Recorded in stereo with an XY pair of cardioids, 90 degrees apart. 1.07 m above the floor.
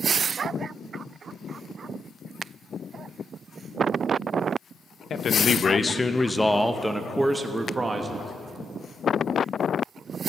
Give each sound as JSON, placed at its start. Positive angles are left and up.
{"t": 5.1, "sound": "a man speaking", "azimuth_deg": 55, "distance_m": 1.0}